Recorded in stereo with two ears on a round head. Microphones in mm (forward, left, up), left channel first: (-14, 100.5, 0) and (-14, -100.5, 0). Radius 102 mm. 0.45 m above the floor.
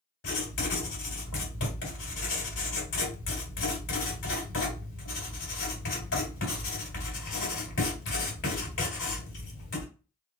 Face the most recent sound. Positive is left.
turn(degrees=55)  # may be behind; listen again after turning